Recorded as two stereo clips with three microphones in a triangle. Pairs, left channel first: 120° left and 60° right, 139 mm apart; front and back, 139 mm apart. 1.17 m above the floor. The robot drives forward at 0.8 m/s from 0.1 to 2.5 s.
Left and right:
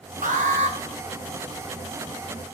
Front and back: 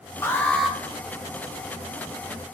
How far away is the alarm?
About 1.1 m.